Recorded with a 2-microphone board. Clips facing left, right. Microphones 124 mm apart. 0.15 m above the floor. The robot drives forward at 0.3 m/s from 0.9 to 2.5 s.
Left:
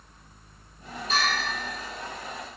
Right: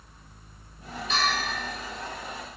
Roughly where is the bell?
Left.